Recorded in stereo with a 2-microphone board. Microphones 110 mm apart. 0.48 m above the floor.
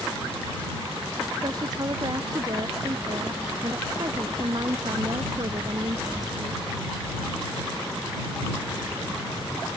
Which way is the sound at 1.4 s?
40° right (ahead or behind).